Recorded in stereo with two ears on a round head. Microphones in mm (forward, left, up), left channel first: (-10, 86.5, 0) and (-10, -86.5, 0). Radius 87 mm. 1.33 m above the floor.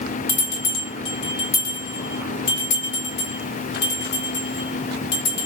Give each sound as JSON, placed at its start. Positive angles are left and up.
{"t": 0.3, "sound": "a bell", "side_deg": 50, "distance_m": 1.1}